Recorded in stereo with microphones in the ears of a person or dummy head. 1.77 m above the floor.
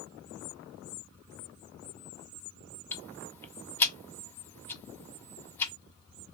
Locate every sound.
2.9 s ticking: 15° left (ahead or behind), 0.6 m